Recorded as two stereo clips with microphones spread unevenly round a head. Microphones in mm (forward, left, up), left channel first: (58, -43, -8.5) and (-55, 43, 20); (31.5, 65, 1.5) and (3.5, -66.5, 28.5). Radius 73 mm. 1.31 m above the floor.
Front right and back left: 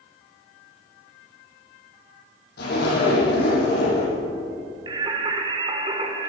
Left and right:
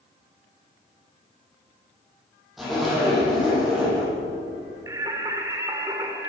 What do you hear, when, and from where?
2.6 s a zipper: 15° right, 9.5 m
4.9 s singing: 165° right, 2 m